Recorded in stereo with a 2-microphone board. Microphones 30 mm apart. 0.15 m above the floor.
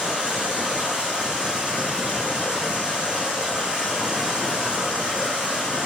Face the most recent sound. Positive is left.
turn(degrees=-35)  # may be behind; listen again after turning